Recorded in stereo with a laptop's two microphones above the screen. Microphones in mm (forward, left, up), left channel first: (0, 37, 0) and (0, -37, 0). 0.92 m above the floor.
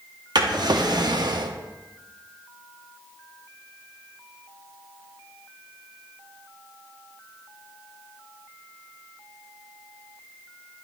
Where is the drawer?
65° right (ahead or behind), 0.7 m.